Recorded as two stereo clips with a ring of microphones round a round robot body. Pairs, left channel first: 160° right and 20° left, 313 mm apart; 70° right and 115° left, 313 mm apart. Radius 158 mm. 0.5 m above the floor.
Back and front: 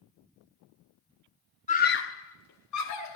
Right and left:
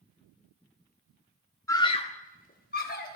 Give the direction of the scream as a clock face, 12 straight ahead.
4 o'clock.